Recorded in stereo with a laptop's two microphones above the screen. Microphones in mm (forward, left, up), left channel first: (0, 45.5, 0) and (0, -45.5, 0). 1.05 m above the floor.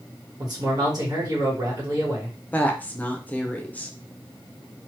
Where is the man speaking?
45° right (ahead or behind), 1.2 m.